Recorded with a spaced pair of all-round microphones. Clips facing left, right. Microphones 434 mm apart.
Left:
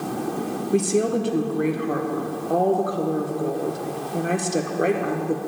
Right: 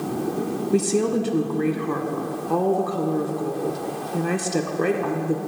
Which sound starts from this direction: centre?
A woman speaking, at 0.7 s.